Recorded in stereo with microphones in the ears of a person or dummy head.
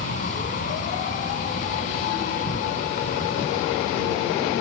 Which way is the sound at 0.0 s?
40° left (ahead or behind).